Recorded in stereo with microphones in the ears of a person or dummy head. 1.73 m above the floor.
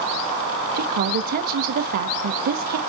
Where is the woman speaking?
50° right (ahead or behind), 0.8 m.